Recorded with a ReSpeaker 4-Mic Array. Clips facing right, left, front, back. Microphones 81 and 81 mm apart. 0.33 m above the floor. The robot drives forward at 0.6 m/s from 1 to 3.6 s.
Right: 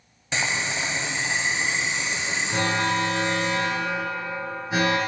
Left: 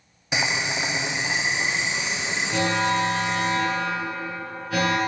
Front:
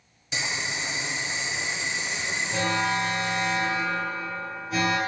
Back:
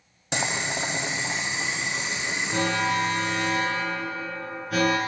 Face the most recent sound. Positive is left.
turn(degrees=-155)